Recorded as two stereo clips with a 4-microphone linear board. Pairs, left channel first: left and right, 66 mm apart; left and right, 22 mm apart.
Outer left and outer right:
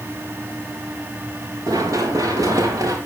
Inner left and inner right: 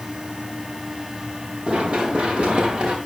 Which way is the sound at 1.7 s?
60° right (ahead or behind).